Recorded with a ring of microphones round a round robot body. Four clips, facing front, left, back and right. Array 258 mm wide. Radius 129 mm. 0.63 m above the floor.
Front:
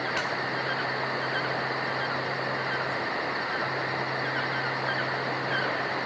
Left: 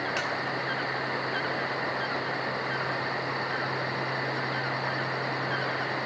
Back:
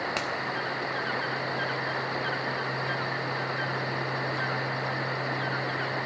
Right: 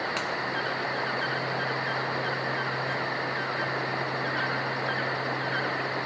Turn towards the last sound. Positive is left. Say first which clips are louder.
# even, front 1 dB
turn(degrees=-175)